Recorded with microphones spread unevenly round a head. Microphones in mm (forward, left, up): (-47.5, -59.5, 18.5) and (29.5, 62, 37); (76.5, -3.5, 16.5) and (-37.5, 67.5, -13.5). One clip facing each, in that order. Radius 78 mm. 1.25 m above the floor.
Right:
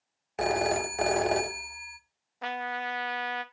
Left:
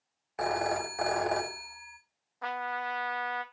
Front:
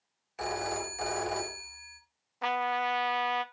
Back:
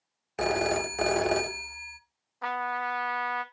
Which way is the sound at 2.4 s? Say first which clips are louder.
Right 1 dB, front 2 dB; 60° right.